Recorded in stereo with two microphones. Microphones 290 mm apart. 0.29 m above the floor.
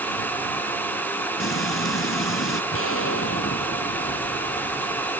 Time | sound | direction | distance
1.4 | frying | 45° left (ahead or behind) | ?
2.7 | an explosion | 50° left (ahead or behind) | ?